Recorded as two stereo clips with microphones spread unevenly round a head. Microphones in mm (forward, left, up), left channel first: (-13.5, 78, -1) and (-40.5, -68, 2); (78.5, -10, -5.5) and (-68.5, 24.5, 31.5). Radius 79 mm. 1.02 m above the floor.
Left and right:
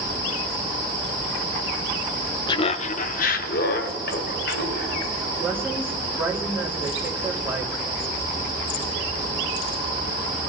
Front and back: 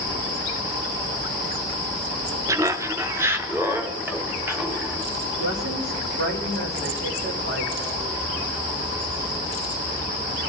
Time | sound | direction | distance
2.5 | laughter | 90° left | 0.5 m
5.4 | a woman speaking | 175° right | 2.5 m